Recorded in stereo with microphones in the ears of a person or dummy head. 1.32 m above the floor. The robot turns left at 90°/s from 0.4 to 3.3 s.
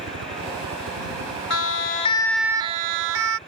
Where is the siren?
85° left; by 3.4 s 80° right.